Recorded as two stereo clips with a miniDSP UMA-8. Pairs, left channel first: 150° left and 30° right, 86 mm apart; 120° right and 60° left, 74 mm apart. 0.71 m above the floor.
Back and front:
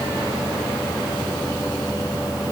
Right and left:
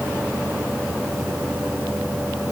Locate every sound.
Only background noise.